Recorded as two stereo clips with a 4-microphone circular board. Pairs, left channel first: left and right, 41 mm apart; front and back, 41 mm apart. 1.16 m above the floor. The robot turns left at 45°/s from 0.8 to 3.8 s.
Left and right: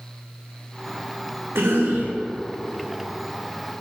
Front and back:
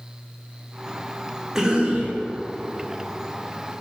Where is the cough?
100° right, 1.4 m; by 2.2 s 125° right, 1.4 m.